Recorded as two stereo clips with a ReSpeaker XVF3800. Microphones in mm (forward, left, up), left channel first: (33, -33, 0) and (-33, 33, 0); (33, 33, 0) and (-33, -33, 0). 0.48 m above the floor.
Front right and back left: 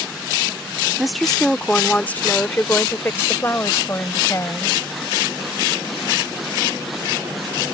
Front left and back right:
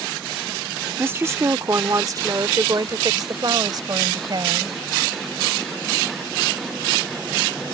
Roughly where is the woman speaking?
Behind right.